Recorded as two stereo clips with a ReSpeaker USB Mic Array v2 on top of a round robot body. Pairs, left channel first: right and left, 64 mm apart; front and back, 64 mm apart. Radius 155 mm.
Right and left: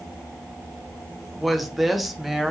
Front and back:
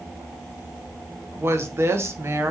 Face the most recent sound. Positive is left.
turn(degrees=180)